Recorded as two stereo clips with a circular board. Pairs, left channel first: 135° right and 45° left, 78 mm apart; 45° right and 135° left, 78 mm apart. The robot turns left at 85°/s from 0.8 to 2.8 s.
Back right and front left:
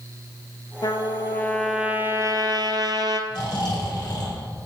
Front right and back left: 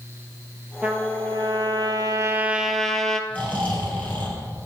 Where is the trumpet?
150° right, 1.1 m; by 3.2 s 40° left, 1.1 m.